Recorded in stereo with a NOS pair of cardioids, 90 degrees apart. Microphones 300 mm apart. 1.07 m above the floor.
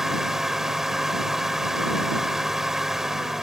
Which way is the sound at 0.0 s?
Straight ahead.